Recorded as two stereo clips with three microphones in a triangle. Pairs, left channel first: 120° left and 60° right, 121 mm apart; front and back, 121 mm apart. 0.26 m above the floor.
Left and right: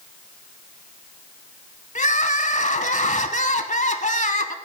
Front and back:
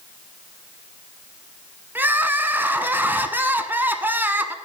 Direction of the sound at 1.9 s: 105° left.